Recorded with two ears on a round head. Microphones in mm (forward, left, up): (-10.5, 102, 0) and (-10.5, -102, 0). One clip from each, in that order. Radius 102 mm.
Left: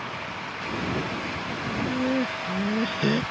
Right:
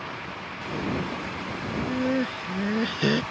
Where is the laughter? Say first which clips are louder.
Even; 10° right (ahead or behind); by 3.2 s 20° right (ahead or behind).